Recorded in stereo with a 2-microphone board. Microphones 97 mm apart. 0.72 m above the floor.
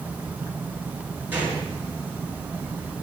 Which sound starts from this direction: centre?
A gunshot, at 1.3 s.